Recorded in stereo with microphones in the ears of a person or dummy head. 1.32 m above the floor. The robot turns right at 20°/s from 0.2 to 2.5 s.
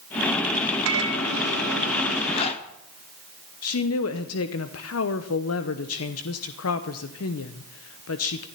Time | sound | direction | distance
0.8 | a microwave | 75° right (ahead or behind) | 1.6 m
2.3 | a zipper | 30° left (ahead or behind) | 1.5 m
3.6 | a woman speaking | 70° left (ahead or behind) | 0.9 m